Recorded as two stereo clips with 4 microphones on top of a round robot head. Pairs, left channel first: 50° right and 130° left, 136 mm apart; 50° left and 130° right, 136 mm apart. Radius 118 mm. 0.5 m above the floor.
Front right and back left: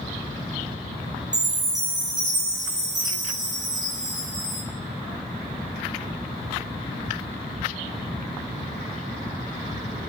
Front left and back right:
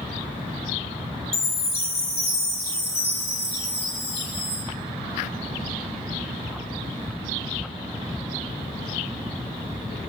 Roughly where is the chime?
Left.